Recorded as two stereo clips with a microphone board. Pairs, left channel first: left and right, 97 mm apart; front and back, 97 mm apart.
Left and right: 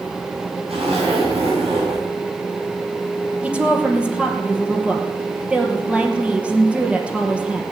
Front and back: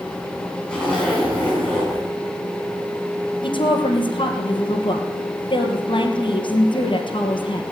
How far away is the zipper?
About 8.5 m.